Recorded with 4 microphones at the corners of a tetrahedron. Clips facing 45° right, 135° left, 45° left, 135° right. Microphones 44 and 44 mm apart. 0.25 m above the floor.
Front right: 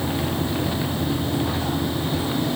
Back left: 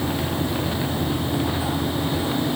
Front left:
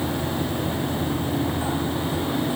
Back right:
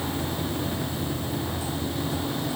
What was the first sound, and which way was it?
Only background noise.